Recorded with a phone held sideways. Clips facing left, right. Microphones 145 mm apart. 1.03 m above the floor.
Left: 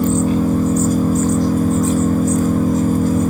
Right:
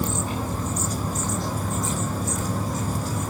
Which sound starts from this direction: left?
An engine running, at 0.0 s.